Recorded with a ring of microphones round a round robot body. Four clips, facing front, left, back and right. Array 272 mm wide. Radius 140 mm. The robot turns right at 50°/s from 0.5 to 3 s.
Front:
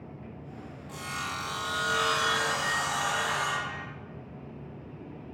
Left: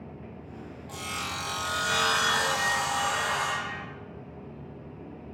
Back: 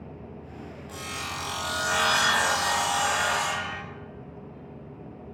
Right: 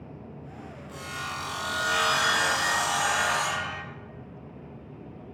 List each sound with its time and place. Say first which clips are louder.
0.9 s sawing: even, front 1 dB; 115° left, 0.9 m; by 3.8 s 140° right, 0.9 m